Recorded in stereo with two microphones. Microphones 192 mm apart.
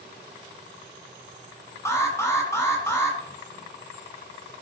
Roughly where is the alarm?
Centre.